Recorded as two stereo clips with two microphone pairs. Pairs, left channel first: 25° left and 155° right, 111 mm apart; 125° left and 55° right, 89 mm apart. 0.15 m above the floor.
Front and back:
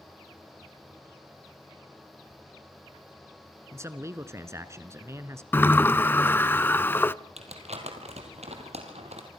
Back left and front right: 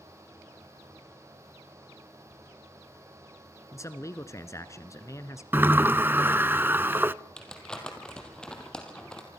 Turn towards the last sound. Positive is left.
turn(degrees=-155)